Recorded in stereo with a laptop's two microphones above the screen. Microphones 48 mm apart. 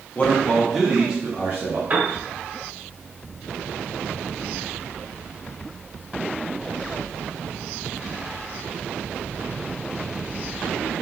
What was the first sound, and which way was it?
A man speaking, 30° left (ahead or behind).